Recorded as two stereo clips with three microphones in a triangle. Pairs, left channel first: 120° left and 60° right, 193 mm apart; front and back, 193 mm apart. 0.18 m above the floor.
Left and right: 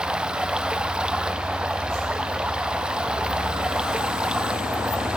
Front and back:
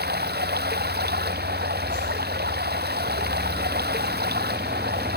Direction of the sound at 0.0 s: 145° right.